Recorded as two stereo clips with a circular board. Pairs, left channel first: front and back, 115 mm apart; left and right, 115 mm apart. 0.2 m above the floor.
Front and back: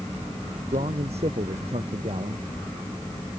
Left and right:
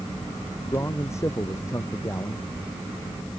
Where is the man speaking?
155° left.